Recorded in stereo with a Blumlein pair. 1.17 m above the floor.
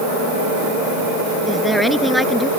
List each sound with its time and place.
1.5 s a woman speaking: straight ahead